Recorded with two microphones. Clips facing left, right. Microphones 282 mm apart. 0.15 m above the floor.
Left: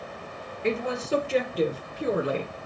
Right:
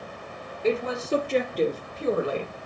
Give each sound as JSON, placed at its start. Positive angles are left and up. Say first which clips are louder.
{"t": 0.6, "sound": "a woman speaking", "louder": "right 2 dB", "side_deg": -5, "distance_m": 2.5}